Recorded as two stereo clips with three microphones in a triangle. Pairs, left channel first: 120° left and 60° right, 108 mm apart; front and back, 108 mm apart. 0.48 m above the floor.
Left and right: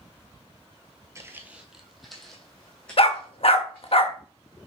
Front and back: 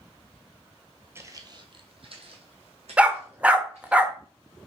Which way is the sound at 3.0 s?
100° left.